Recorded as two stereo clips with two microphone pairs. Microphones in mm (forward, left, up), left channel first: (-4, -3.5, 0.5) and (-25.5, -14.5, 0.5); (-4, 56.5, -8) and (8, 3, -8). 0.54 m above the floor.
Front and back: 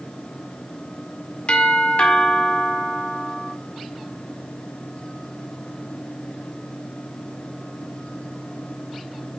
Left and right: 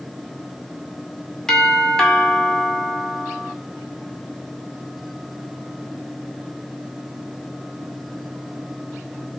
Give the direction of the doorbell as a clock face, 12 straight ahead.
11 o'clock.